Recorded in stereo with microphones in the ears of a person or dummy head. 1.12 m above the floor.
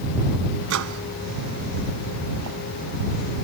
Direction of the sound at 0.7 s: 70° right (ahead or behind).